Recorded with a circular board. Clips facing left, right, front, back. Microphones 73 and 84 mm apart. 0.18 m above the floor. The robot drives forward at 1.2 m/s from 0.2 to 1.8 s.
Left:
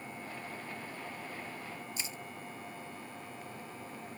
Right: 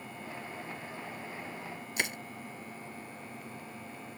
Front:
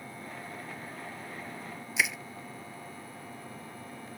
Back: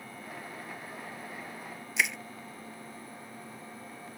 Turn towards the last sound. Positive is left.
turn(degrees=-85)